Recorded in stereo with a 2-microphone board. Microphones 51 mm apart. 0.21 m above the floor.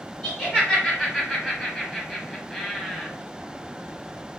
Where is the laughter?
15° left (ahead or behind), 1.4 m; by 3.1 s 5° left (ahead or behind), 1.3 m.